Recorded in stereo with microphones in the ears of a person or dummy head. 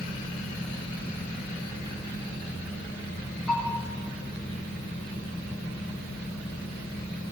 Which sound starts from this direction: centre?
A bell, at 3.5 s.